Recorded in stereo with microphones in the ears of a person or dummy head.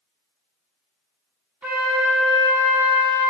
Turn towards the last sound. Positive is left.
turn(degrees=-10)  # may be behind; listen again after turning